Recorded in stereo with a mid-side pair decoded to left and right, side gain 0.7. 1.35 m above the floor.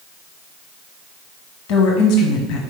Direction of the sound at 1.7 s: 70° left.